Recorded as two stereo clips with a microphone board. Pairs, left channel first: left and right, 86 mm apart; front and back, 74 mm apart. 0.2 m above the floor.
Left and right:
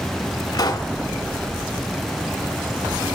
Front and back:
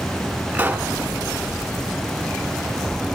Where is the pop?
120° left, 0.5 m.